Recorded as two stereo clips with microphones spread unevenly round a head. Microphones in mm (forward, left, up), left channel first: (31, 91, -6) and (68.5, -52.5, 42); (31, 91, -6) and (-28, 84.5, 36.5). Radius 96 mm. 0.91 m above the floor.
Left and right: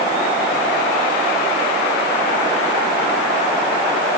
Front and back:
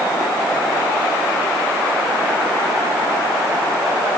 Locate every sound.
Only background noise.